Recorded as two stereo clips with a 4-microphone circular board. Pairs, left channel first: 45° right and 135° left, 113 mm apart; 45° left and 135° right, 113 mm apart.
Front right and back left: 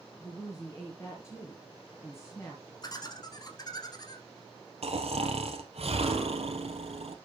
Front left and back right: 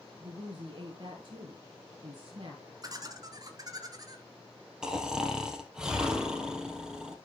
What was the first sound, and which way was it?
A woman speaking, 100° right.